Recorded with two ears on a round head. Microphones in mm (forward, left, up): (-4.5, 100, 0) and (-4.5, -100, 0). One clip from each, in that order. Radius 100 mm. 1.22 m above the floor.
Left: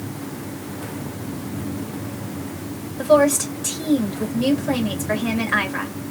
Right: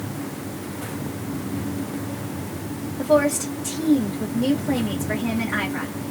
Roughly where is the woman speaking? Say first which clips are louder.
Left 3 dB; left.